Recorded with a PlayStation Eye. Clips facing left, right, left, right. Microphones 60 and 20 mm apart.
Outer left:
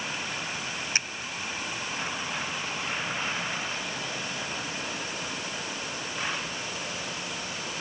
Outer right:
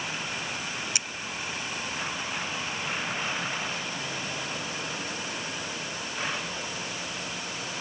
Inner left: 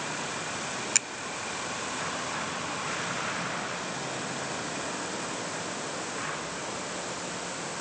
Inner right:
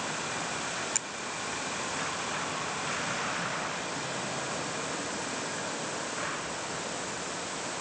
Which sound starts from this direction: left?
A finger snap, at 0.9 s.